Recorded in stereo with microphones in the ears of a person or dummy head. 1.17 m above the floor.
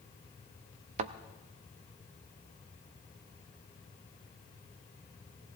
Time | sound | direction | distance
1.0 | a thud | 50° right (ahead or behind) | 0.7 m